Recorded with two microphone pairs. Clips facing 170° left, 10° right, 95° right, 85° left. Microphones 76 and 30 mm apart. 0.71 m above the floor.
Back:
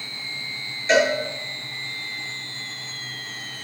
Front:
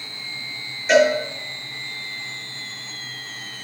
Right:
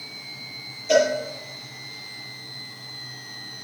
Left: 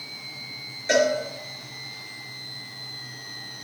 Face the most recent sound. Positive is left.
turn(degrees=65)